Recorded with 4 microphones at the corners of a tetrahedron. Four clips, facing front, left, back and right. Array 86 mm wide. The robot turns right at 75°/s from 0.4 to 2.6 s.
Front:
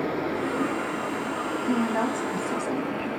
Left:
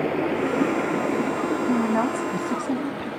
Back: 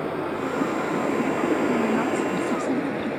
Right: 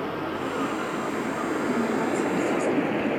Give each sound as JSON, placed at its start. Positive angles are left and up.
{"t": 0.0, "sound": "running water", "azimuth_deg": 80, "distance_m": 3.5}
{"t": 1.7, "sound": "a woman speaking", "azimuth_deg": 55, "distance_m": 2.5}